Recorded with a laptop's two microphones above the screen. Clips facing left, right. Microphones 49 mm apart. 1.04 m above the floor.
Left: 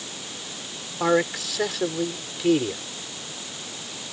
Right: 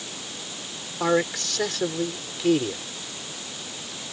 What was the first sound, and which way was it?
A man speaking, 5° left (ahead or behind).